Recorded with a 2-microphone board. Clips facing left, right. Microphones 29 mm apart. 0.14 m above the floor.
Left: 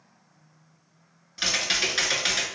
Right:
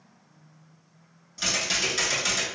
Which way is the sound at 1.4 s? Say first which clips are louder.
Left 2 dB; 30° left (ahead or behind).